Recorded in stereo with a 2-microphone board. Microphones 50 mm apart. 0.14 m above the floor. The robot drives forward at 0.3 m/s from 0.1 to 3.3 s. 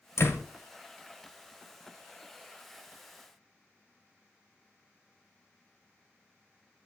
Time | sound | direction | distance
0.2 | a door slam | 60° left (ahead or behind) | 1.9 m